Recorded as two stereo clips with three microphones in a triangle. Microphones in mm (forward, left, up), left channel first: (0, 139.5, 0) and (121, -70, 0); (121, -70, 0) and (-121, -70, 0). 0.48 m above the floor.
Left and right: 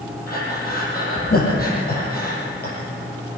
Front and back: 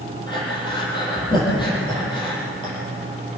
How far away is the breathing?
About 7 m.